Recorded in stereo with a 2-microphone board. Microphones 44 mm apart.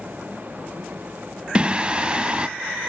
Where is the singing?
25° right (ahead or behind), 0.6 m.